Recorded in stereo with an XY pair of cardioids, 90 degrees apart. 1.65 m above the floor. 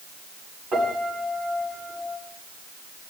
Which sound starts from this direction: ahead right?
A piano, at 0.7 s.